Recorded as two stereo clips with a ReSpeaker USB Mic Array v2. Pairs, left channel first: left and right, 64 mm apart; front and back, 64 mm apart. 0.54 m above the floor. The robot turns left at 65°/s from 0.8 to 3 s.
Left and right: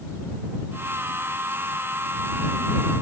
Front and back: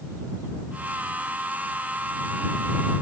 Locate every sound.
Only background noise.